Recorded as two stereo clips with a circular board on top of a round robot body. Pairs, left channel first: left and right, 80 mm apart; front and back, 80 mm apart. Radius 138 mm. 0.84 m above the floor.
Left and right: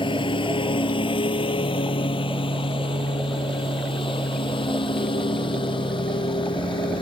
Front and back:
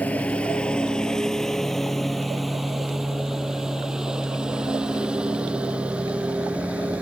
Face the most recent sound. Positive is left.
turn(degrees=105)